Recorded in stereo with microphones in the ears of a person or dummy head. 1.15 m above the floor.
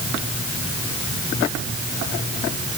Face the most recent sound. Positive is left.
No sound to turn to.